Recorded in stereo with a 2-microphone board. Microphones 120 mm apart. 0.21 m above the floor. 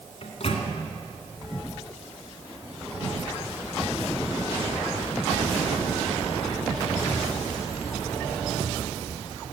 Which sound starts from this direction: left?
A microwave, at 0.2 s.